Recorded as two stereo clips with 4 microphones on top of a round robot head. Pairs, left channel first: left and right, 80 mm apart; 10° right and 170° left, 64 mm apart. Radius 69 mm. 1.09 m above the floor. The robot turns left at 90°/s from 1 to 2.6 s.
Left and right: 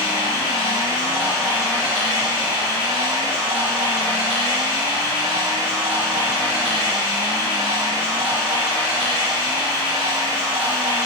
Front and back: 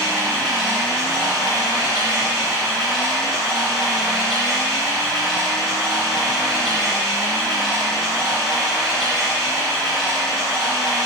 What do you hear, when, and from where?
0.0 s running water: 65° left, 1.3 m; by 11.1 s 80° right, 1.3 m